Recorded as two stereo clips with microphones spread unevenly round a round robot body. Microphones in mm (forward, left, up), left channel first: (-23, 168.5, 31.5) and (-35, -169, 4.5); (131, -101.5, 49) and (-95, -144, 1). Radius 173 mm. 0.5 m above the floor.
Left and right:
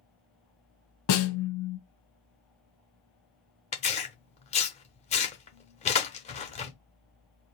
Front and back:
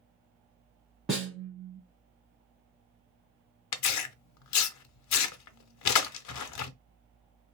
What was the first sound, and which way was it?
A snare drum, 100° left.